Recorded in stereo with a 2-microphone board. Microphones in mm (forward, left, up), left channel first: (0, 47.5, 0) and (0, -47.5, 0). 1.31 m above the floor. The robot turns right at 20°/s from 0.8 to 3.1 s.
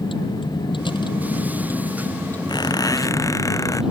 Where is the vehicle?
60° left (ahead or behind); by 3.9 s 5° right (ahead or behind).